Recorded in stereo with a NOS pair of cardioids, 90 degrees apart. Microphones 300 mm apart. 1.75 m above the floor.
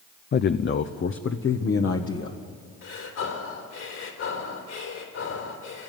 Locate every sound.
0.3 s a man speaking: 35° left, 0.6 m; by 2.4 s 45° left, 1.8 m
2.8 s breathing: 60° left, 3.5 m